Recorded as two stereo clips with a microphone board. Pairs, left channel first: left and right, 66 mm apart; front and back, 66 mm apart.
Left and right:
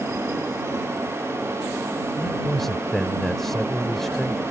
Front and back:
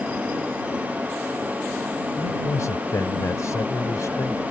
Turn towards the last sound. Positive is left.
turn(degrees=5)